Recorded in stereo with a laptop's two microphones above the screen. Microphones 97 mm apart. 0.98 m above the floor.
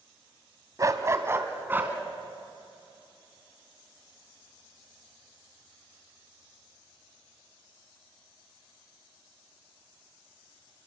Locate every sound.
0.8 s a dog barking: 35° right (ahead or behind), 1.6 m; by 1.9 s 20° right (ahead or behind), 2.5 m